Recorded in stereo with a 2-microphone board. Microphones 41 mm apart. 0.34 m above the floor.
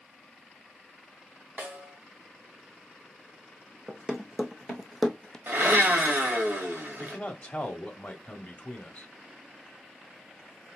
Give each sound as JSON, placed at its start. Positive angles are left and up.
{"t": 1.6, "sound": "a snare drum", "side_deg": -30, "distance_m": 2.5}
{"t": 3.9, "sound": "running footsteps", "side_deg": -25, "distance_m": 1.2}
{"t": 5.5, "sound": "a blender", "side_deg": -50, "distance_m": 1.2}
{"t": 7.0, "sound": "a man speaking", "side_deg": 35, "distance_m": 1.2}